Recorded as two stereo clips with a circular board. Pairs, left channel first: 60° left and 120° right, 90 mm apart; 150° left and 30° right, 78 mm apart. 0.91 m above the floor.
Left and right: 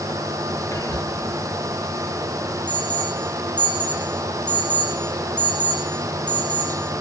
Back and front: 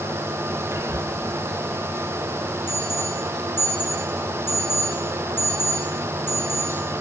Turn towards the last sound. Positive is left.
turn(degrees=95)